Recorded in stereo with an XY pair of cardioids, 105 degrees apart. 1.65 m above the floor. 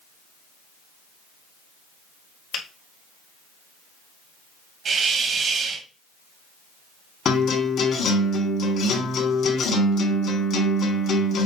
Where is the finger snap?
70° left, 2 m.